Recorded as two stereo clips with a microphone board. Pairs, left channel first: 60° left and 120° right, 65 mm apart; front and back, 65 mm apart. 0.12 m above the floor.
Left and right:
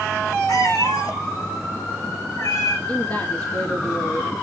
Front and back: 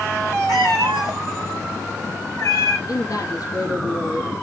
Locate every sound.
0.5 s a cat meowing: 30° left, 6 m
2.9 s a woman speaking: 25° left, 3 m